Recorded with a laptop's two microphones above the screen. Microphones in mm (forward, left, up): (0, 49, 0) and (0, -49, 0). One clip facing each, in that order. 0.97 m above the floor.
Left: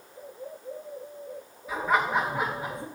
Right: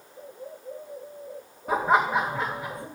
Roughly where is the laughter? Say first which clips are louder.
Right 3 dB; right.